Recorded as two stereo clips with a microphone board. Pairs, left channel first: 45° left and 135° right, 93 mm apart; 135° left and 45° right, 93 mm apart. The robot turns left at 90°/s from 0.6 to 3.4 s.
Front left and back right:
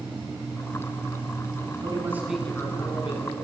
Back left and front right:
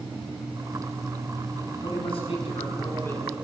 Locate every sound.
1.7 s a man speaking: 165° right, 6.5 m; by 3.4 s 45° left, 6.5 m